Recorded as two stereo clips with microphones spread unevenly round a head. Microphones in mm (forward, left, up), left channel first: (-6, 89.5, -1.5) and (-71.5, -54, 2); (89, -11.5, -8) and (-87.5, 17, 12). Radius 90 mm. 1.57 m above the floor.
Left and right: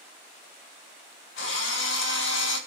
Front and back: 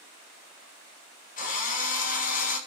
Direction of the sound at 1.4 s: 35° left.